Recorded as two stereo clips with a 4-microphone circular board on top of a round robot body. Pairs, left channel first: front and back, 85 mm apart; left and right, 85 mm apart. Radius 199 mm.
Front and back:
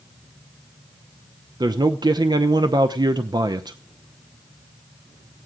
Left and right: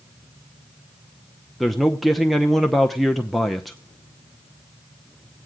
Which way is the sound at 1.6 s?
Straight behind.